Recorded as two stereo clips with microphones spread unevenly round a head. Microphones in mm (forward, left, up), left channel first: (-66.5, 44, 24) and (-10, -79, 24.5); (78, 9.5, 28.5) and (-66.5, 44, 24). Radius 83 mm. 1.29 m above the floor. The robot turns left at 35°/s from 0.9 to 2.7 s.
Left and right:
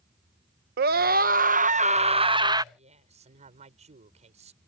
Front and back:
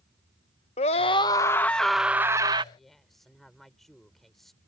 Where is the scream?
70° right; by 2.6 s 130° right.